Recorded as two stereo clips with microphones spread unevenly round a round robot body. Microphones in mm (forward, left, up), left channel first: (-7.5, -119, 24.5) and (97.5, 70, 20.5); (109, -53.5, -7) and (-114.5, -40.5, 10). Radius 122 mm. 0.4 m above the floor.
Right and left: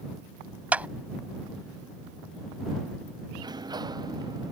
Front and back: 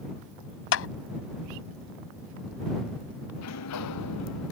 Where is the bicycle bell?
I don't hear a bicycle bell.